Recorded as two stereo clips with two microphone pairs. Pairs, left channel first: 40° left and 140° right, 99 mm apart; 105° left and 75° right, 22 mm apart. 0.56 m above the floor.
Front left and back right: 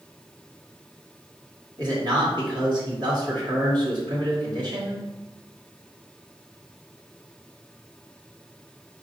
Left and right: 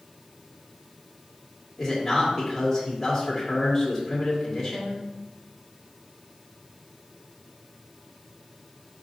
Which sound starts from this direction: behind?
A man speaking, at 1.8 s.